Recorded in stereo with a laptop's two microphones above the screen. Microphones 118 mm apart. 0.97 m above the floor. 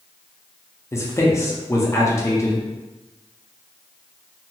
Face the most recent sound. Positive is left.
turn(degrees=25)  # may be behind; listen again after turning